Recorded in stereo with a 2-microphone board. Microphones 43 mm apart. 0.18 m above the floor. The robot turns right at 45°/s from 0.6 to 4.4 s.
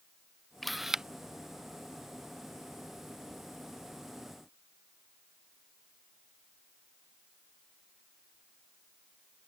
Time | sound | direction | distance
0.6 | a camera shutter | 5° left (ahead or behind) | ?